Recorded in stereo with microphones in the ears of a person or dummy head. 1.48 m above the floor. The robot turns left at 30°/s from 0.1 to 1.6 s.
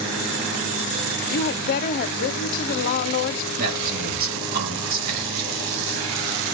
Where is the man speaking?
50° right (ahead or behind), 6.5 m.